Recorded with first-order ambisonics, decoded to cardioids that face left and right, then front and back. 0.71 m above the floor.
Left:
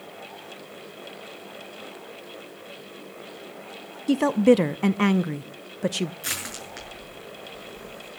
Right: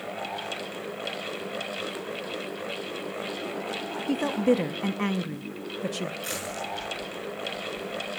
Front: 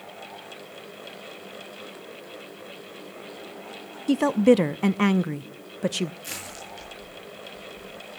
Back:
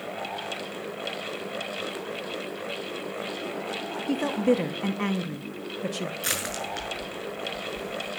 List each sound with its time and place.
4.1 s a woman speaking: 40° left, 0.5 m
6.2 s crushing: 160° left, 6.5 m